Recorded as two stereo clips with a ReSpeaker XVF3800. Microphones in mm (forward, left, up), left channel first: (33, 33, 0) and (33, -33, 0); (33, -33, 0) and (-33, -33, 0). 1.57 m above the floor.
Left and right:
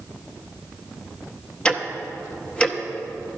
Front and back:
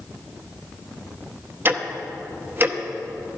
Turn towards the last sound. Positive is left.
turn(degrees=155)